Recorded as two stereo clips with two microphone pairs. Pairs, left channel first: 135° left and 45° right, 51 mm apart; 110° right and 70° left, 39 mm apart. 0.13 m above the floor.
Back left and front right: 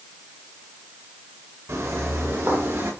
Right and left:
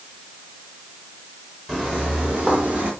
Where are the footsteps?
5° right, 5 m; by 2.9 s 5° left, 5.5 m.